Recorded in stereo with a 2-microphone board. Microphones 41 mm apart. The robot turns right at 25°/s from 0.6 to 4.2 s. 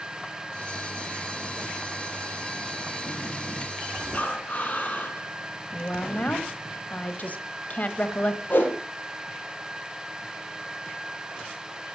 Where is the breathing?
35° left (ahead or behind), 2 m.